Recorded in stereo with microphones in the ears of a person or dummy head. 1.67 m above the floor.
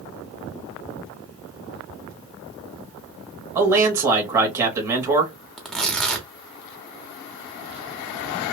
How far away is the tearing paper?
About 0.6 m.